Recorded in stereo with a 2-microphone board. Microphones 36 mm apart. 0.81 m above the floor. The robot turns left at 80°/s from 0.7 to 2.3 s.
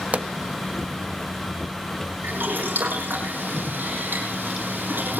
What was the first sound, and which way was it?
A pop, 45° right (ahead or behind).